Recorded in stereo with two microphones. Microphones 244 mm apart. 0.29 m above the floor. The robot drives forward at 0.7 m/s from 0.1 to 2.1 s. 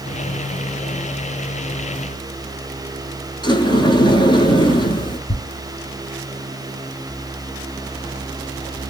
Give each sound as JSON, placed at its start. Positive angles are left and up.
{"t": 3.4, "sound": "a sliding door", "side_deg": 20, "distance_m": 0.9}
{"t": 5.3, "sound": "ticking", "side_deg": 30, "distance_m": 1.9}